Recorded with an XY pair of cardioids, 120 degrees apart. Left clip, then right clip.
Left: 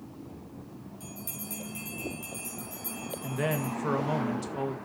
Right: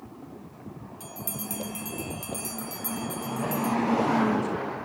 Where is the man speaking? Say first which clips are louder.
Right 1 dB; 65° left, 1.6 m.